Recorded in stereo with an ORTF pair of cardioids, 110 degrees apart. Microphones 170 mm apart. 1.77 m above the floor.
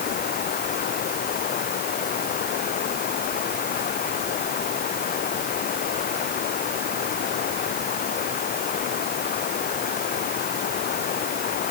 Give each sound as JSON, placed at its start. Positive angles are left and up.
{"t": 0.0, "sound": "running water", "azimuth_deg": 60}